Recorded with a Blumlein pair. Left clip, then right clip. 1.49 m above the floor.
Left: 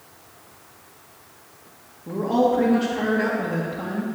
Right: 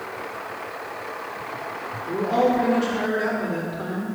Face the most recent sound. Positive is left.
turn(degrees=30)